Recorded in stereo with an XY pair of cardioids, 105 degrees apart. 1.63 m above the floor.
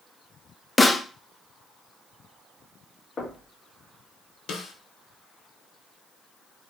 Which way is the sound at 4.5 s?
65° left.